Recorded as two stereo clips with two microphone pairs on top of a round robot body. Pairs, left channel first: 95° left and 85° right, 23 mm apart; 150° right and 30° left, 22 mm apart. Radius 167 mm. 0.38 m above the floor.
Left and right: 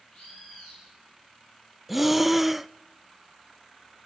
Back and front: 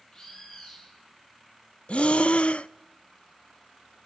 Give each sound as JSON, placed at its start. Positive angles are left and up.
{"t": 0.1, "sound": "a bird", "azimuth_deg": 150, "distance_m": 7.5}
{"t": 1.9, "sound": "breathing", "azimuth_deg": -175, "distance_m": 0.6}